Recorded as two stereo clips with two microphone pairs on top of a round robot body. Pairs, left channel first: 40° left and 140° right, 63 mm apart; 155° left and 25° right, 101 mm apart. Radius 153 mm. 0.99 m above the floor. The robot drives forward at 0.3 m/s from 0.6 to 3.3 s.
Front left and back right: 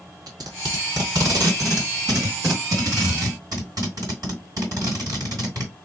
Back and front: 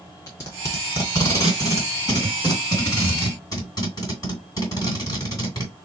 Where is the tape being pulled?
145° right, 2 m; by 5.7 s 155° right, 3 m.